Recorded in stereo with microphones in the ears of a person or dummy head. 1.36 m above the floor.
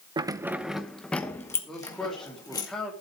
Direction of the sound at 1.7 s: 5° left (ahead or behind).